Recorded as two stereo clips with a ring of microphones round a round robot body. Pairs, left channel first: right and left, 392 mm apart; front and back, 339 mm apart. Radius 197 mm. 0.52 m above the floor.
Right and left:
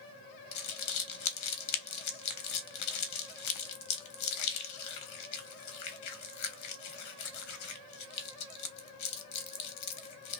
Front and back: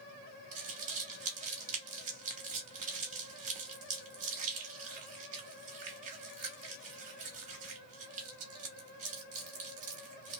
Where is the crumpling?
120° right, 0.7 m.